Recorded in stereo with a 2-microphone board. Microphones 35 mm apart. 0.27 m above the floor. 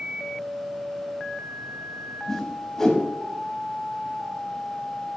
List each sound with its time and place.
2.3 s a whoosh: 10° left (ahead or behind), 0.8 m